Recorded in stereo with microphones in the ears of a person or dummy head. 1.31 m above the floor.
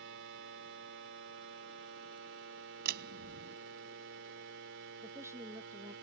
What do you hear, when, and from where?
0.0 s a machine running: 70° right (ahead or behind)
2.9 s a door slam: 55° right (ahead or behind)
5.0 s a woman speaking: 15° right (ahead or behind)